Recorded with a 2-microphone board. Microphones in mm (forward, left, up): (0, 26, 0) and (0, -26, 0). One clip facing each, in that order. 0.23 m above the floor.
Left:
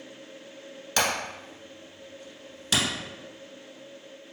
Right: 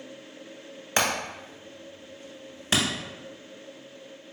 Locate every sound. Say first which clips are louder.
1.0 s hammering: right 1 dB; 25° right (ahead or behind), 1.3 m